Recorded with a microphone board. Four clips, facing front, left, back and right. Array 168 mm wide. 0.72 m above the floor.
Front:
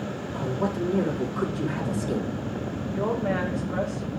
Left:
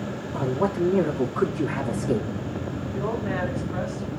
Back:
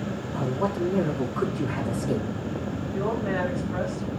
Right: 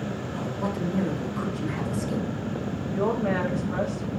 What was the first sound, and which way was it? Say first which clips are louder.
A man speaking: left 8 dB, back 1 dB; 105° left.